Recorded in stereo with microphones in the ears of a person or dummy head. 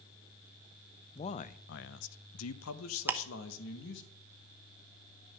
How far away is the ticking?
About 0.9 m.